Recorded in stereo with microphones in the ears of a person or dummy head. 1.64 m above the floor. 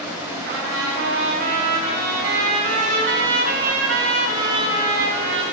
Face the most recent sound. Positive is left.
turn(degrees=-80)